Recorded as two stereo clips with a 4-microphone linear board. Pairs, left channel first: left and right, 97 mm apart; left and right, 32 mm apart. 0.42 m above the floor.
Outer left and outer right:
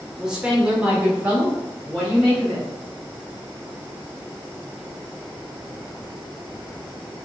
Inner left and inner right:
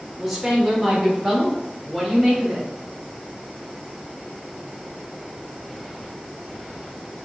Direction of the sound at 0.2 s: 5° right (ahead or behind).